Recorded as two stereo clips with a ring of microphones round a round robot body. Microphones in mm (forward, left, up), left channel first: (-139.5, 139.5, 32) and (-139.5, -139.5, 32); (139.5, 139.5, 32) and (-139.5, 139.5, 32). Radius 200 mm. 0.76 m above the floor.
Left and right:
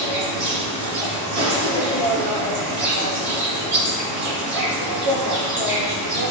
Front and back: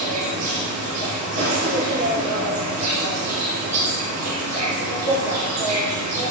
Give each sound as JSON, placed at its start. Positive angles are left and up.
{"t": 0.0, "sound": "an insect", "azimuth_deg": -100, "distance_m": 2.5}